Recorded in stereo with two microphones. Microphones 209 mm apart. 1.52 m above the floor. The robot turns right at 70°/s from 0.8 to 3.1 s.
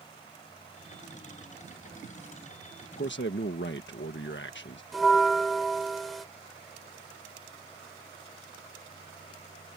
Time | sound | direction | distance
3.0 | a man speaking | 55° left (ahead or behind) | ?
4.9 | a bell | centre (ahead or behind) | ?